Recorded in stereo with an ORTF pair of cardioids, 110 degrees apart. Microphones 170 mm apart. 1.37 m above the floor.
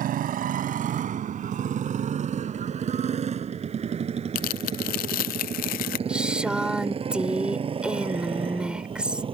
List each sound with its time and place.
0.0 s a motorcycle: 60° right; by 9.3 s 30° right
4.3 s tearing paper: 65° left
6.1 s a woman speaking: 5° right